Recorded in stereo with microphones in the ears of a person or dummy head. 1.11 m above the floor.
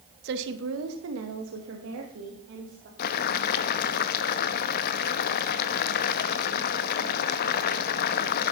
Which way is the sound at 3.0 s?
50° left (ahead or behind).